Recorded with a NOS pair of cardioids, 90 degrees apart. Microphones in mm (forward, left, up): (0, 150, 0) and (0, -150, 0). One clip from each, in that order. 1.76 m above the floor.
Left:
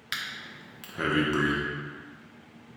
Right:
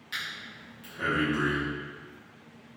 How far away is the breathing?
About 1.0 m.